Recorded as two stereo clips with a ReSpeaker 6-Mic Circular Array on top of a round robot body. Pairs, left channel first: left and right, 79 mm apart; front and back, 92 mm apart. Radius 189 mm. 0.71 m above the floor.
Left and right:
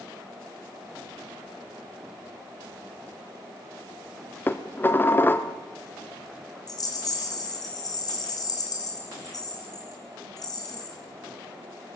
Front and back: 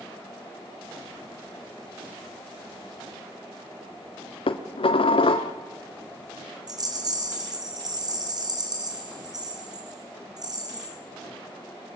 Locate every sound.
4.5 s dishes clattering: 25° left, 1.2 m
6.7 s a rattle: 135° left, 3.5 m